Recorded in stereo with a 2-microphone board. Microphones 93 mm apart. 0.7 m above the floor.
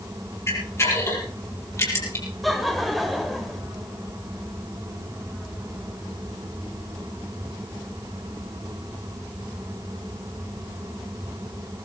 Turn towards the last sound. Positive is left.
turn(degrees=0)  # may be behind; listen again after turning